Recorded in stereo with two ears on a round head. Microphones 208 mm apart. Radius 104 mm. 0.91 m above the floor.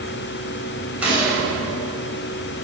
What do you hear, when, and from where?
1.0 s a gunshot: 5° right (ahead or behind), 4.5 m